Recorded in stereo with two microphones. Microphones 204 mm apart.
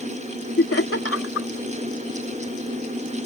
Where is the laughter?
75° left (ahead or behind).